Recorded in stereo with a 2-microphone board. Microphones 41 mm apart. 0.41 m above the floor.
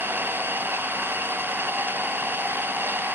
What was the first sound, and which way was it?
An engine running, 55° right (ahead or behind).